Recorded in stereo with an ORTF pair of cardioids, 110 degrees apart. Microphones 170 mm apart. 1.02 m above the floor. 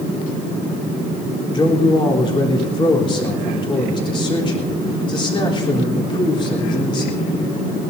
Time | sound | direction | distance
1.5 | a man speaking | 30° left | 3.5 m